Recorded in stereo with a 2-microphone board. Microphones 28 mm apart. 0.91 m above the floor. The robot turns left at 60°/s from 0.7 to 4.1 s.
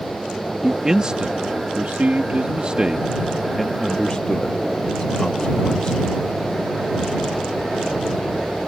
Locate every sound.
0.6 s a man speaking: 10° right (ahead or behind); by 6.1 s 35° left (ahead or behind)